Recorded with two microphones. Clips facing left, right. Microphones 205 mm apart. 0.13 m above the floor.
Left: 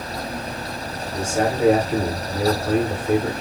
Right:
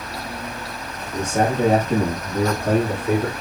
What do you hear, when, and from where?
1.1 s a man speaking: 70° right (ahead or behind), 5.5 m; by 3.3 s 60° right (ahead or behind), 6.5 m